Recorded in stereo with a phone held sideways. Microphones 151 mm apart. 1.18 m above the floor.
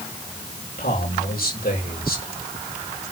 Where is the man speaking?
80° left, 6.5 m.